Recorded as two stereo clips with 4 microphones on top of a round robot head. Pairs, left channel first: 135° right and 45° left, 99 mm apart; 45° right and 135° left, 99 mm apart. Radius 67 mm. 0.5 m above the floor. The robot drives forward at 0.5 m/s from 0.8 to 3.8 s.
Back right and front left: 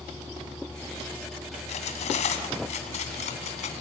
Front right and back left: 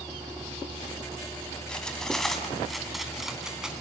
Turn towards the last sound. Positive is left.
turn(degrees=-140)